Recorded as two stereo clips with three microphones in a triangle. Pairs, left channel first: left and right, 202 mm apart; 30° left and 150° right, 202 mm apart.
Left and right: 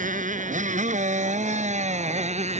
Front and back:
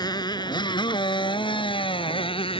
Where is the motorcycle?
40° right; by 2.6 s 35° right.